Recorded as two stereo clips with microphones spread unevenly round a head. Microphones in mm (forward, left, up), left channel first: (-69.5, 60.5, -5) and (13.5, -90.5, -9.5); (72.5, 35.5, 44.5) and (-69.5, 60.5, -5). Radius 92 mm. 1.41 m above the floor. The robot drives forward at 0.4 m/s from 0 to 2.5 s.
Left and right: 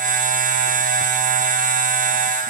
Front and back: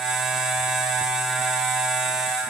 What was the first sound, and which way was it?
Only background noise.